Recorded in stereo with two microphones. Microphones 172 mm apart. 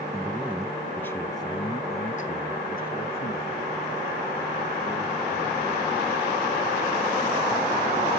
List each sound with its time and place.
0.1 s a man speaking: 15° right (ahead or behind), 1.6 m; by 6.1 s 65° left (ahead or behind), 4.5 m